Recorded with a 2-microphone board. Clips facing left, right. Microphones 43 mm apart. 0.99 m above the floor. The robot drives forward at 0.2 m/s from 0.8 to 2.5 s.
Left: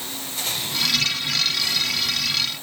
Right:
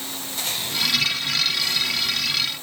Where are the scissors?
No scissors in this recording.